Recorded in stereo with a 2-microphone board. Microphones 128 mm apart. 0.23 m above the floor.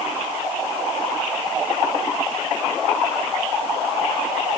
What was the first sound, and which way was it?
Only background noise.